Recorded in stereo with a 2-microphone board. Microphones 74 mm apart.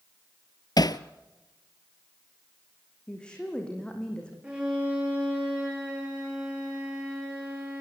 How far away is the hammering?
About 0.8 m.